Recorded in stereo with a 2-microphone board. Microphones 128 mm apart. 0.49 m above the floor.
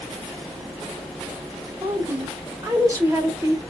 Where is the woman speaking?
25° right (ahead or behind), 1.2 m.